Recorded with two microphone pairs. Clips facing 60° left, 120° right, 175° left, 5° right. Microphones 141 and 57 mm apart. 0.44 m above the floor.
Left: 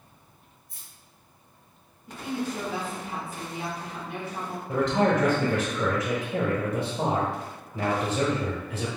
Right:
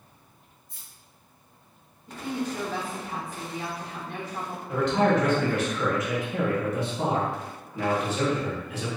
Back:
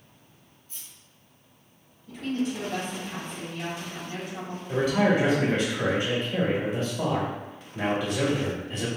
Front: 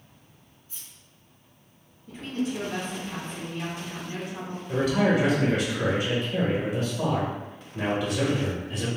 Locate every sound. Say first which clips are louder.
0.7 s keys jangling: even, even; 70° left, 1.9 m
2.1 s a woman speaking: even, back 1 dB; 10° right, 1.1 m
4.7 s a man speaking: even, even; 75° left, 1.2 m